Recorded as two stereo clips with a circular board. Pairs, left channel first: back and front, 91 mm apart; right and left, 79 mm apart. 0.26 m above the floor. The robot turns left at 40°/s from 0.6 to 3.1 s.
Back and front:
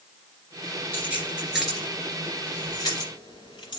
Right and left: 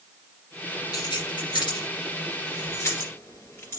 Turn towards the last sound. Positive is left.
turn(degrees=-145)